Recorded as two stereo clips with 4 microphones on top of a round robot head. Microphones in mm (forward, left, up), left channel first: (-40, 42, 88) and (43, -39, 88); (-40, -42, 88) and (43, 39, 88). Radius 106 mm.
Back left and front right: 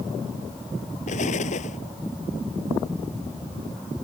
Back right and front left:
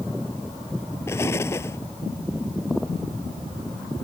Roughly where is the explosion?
Behind left.